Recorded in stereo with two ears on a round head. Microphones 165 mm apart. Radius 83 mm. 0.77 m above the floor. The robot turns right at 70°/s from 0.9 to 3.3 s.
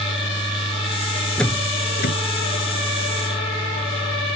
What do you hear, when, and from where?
1.4 s a door slam: 5° left (ahead or behind); by 2.1 s 55° left (ahead or behind)